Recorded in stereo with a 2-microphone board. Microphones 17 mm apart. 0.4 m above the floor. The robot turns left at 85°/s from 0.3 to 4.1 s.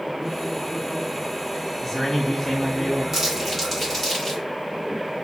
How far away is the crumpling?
About 1.4 m.